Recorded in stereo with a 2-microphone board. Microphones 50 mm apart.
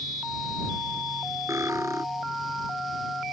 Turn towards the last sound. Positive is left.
turn(degrees=-80)